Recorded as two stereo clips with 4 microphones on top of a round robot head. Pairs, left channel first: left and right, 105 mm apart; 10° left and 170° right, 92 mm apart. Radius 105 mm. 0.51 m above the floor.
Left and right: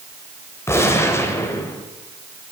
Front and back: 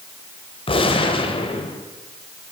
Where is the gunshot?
25° left, 1.8 m.